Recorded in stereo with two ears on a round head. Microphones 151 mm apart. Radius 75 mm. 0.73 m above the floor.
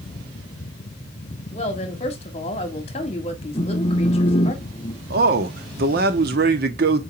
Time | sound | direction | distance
1.5 | a woman speaking | 35° left (ahead or behind) | 1.6 m
3.5 | a phone buzzing | 30° left (ahead or behind) | 0.7 m
5.1 | a man speaking | 60° right (ahead or behind) | 1.1 m